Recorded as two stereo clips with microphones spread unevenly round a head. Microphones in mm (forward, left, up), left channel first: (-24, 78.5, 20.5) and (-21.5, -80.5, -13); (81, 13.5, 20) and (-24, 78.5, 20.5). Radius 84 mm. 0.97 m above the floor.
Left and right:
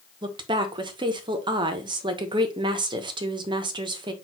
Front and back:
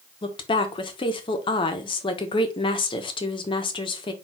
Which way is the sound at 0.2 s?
60° right.